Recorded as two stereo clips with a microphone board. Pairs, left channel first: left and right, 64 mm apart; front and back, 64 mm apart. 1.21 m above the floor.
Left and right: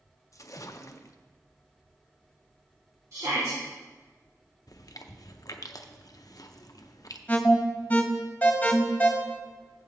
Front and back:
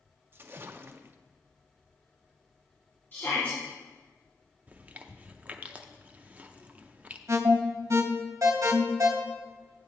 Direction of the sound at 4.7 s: 115° left.